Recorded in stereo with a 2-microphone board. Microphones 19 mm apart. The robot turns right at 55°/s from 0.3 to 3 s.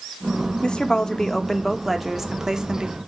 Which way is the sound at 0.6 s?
115° left.